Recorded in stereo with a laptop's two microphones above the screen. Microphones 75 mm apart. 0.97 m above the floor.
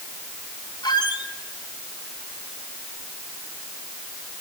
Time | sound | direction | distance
0.8 | a squeak | 85° left | 1.3 m